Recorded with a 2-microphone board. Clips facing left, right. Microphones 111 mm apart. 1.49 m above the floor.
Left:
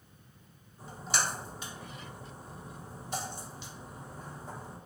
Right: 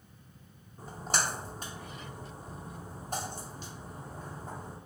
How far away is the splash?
About 0.8 m.